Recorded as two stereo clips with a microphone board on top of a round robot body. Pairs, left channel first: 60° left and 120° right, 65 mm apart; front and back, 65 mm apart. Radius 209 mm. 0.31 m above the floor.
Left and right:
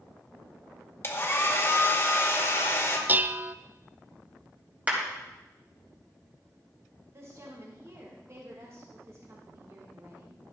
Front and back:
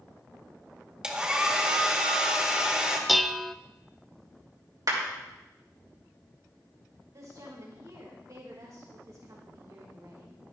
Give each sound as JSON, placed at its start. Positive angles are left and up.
{"t": 1.0, "sound": "a hair dryer", "azimuth_deg": 105, "distance_m": 2.0}
{"t": 3.1, "sound": "dishes clattering", "azimuth_deg": -90, "distance_m": 0.6}
{"t": 4.9, "sound": "a clap", "azimuth_deg": 175, "distance_m": 3.0}
{"t": 7.1, "sound": "a woman speaking", "azimuth_deg": -155, "distance_m": 2.5}